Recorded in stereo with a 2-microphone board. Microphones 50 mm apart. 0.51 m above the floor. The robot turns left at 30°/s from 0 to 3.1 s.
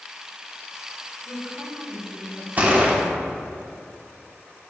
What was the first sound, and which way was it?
A woman speaking, 25° right.